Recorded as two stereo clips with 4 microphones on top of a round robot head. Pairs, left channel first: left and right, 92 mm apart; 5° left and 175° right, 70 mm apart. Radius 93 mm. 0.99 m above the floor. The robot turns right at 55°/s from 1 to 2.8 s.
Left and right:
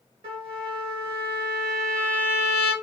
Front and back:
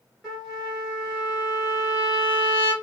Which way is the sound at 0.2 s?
85° right.